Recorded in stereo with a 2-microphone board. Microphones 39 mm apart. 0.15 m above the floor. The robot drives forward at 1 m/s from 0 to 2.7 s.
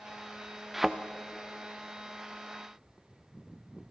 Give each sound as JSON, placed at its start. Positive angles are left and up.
{"t": 0.7, "sound": "a thud", "side_deg": -5, "distance_m": 0.7}